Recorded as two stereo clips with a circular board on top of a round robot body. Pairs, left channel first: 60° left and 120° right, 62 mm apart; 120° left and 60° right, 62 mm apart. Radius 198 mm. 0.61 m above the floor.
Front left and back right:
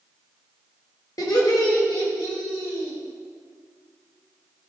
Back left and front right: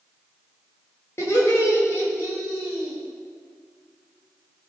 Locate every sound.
1.2 s laughter: 75° left, 3 m; by 3.0 s 65° left, 5.5 m